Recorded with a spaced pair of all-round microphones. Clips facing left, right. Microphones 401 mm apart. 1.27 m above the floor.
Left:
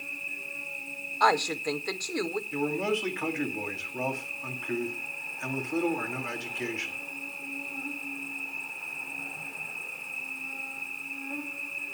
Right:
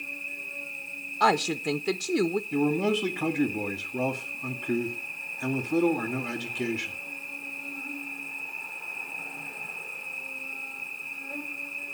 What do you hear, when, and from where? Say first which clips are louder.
0.0 s an insect: right 1 dB; 45° left (ahead or behind), 3.5 m
1.2 s a woman speaking: right 2 dB; 50° right (ahead or behind), 0.5 m
2.5 s a man speaking: right 2 dB; 50° right (ahead or behind), 2.0 m